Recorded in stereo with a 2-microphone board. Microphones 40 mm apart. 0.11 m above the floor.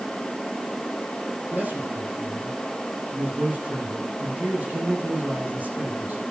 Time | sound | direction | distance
1.5 | a man speaking | 45° right (ahead or behind) | 8 m